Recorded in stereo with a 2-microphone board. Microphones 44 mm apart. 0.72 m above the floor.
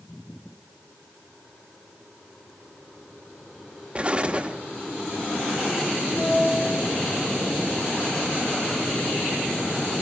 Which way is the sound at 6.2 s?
55° left (ahead or behind).